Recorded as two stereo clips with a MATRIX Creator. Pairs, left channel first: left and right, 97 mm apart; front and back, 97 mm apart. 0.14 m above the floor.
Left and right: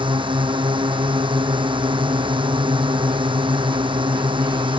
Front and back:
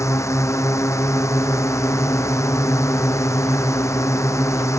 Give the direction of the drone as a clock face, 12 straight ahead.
2 o'clock.